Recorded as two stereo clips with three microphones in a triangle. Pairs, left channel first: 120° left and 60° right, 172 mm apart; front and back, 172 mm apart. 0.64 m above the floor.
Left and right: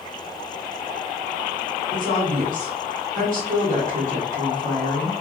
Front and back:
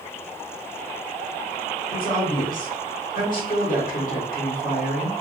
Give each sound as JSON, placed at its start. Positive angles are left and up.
{"t": 1.9, "sound": "a woman speaking", "azimuth_deg": -30, "distance_m": 1.5}